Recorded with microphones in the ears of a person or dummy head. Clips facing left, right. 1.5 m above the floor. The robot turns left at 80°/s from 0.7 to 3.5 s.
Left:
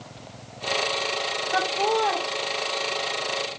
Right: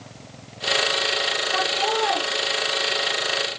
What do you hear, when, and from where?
1.5 s laughter: 45° left, 1.4 m; by 2.2 s 10° right, 1.4 m